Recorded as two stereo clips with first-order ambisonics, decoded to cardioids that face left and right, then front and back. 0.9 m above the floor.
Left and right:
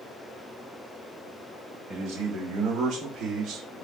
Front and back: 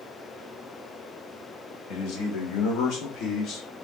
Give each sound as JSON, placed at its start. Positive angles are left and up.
{"t": 1.9, "sound": "a man speaking", "azimuth_deg": -35, "distance_m": 4.0}